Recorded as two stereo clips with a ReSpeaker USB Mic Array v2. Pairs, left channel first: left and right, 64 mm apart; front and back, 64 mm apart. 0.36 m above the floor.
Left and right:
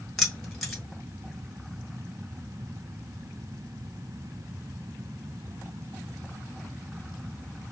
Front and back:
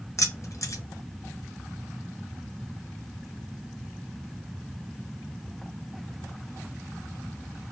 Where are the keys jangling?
5° left, 0.9 m.